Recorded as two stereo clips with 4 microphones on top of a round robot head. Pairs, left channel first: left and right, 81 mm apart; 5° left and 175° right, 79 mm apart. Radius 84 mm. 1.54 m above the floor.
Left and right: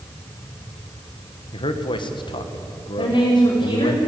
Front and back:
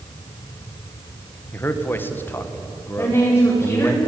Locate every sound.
1.5 s a man speaking: 70° left, 1.9 m
3.0 s a woman speaking: 70° left, 4.5 m